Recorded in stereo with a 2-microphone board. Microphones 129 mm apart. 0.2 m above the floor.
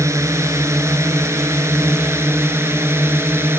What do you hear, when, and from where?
0.0 s a drone: 25° right (ahead or behind); by 3.6 s 20° right (ahead or behind)